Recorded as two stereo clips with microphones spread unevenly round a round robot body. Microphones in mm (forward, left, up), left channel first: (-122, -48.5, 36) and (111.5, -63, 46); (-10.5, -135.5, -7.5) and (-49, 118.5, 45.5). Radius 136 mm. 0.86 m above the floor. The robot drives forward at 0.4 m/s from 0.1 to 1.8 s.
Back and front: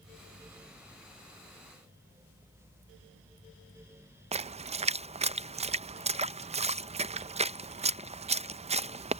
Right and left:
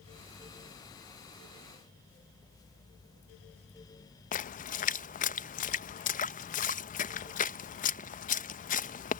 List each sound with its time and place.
4.3 s a splash: 60° right